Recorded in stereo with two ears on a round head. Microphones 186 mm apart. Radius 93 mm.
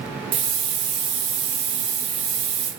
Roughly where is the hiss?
Right.